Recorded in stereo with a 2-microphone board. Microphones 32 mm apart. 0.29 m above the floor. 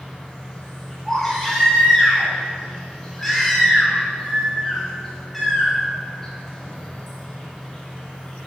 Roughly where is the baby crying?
Centre.